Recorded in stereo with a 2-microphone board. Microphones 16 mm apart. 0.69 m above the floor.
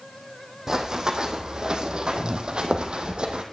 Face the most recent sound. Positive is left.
turn(degrees=-60)  # may be behind; listen again after turning